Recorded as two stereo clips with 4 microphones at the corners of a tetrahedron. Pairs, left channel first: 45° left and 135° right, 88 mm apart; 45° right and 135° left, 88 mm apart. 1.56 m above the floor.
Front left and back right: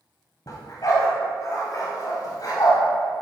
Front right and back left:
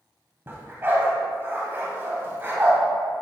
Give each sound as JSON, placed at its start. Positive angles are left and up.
{"t": 0.5, "sound": "a dog barking", "azimuth_deg": 75, "distance_m": 2.5}